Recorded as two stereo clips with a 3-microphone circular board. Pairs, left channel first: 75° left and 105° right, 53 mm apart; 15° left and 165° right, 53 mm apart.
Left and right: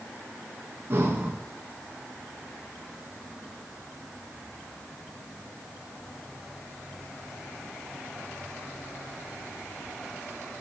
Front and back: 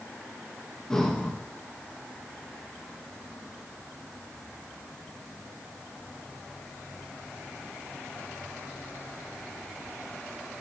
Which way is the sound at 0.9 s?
65° right.